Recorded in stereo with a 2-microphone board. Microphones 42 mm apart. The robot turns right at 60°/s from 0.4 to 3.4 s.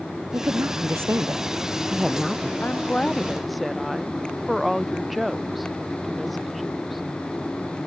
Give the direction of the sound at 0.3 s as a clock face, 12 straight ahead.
4 o'clock.